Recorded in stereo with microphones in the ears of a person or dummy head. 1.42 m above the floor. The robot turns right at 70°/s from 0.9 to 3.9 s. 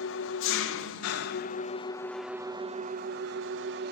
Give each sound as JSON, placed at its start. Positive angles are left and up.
{"t": 0.0, "sound": "an engine running", "azimuth_deg": 85, "distance_m": 1.0}